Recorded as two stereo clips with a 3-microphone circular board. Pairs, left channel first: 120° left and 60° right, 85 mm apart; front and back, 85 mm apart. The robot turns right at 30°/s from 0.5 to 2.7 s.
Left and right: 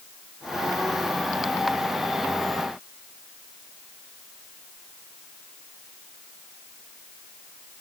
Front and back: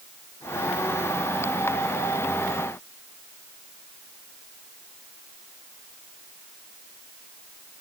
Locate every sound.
Only background noise.